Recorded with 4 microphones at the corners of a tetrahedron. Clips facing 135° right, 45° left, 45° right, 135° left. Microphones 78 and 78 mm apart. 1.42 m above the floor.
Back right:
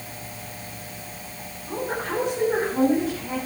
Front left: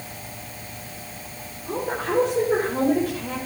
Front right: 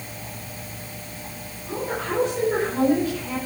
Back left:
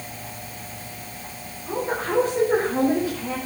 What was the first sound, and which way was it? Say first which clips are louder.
A woman speaking: front left 2 dB, back left 2 dB; 65° left.